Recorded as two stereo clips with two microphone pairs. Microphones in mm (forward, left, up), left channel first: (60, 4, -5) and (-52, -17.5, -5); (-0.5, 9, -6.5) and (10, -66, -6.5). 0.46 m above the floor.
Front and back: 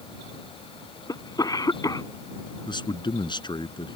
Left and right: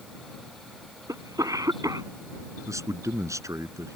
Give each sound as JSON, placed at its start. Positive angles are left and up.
{"t": 1.1, "sound": "a cough", "azimuth_deg": -45}
{"t": 2.7, "sound": "a man speaking", "azimuth_deg": -35}